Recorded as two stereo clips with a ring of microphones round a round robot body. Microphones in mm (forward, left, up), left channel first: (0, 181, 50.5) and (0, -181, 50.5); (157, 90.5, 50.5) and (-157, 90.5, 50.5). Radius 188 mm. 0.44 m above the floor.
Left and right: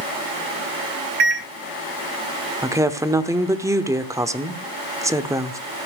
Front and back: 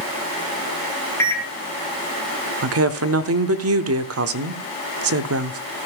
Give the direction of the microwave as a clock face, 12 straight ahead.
3 o'clock.